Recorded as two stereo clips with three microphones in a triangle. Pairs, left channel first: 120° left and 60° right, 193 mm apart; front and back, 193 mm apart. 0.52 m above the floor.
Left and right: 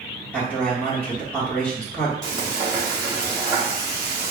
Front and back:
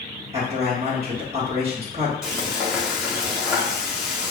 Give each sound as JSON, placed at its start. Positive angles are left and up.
{"t": 0.3, "sound": "a man speaking", "azimuth_deg": -165, "distance_m": 1.4}
{"t": 2.2, "sound": "frying", "azimuth_deg": -100, "distance_m": 1.2}